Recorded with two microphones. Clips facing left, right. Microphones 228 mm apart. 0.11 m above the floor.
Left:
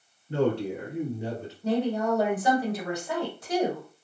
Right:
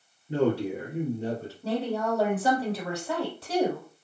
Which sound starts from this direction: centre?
A man speaking, at 0.3 s.